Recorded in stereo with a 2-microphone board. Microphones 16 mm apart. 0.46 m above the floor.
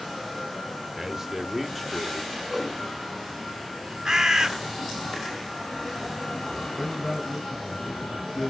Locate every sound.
1.0 s a man speaking: 20° right (ahead or behind), 1.7 m; by 2.4 s 15° left (ahead or behind), 1.4 m
2.5 s a whoosh: 15° right (ahead or behind), 2.5 m
4.0 s a bird: 35° right (ahead or behind), 1.2 m
6.8 s a man speaking: 20° left (ahead or behind), 2 m